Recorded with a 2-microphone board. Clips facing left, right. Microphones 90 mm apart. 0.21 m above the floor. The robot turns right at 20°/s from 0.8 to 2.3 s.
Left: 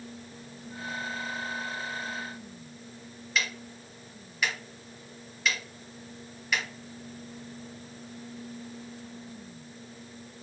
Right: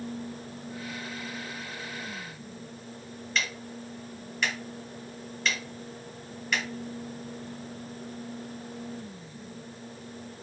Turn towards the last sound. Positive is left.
turn(degrees=5)  # may be behind; listen again after turning